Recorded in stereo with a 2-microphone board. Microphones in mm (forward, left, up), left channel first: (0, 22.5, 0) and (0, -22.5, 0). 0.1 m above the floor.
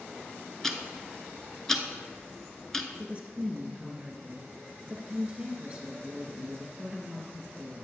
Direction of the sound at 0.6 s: 10° left (ahead or behind).